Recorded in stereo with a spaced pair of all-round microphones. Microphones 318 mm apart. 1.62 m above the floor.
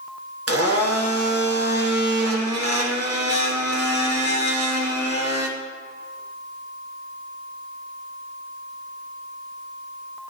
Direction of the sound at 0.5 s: 50° right (ahead or behind).